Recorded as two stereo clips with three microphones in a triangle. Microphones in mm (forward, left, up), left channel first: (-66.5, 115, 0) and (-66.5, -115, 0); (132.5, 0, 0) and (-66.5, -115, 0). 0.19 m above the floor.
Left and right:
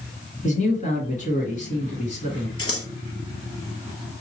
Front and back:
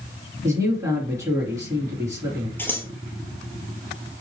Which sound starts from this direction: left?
Scissors, at 2.6 s.